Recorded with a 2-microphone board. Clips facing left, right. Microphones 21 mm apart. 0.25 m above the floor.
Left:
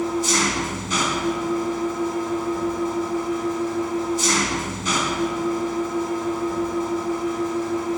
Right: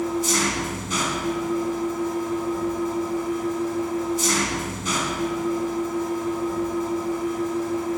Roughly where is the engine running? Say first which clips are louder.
Left 2 dB; centre.